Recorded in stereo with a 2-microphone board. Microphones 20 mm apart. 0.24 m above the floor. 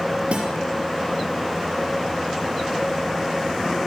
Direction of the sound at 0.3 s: 70° right (ahead or behind).